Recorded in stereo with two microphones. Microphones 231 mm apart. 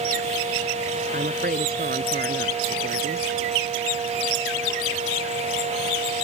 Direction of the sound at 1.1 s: 40° right (ahead or behind).